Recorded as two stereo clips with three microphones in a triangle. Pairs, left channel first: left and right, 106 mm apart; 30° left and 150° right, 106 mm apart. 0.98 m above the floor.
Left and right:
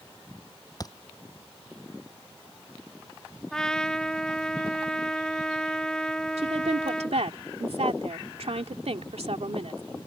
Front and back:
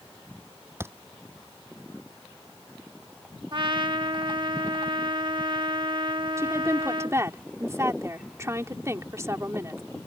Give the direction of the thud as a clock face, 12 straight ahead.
7 o'clock.